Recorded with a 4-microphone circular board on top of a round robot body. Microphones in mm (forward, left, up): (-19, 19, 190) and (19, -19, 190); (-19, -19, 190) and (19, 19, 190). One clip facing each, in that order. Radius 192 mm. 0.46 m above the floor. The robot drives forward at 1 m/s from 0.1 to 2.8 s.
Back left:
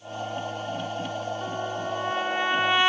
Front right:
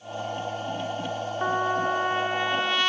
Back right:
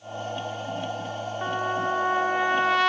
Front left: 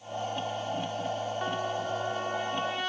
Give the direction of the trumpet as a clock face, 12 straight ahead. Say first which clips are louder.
Front right 6 dB, back right 10 dB; 2 o'clock.